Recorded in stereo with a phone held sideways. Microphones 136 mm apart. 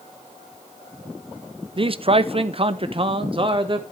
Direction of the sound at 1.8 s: 40° right (ahead or behind).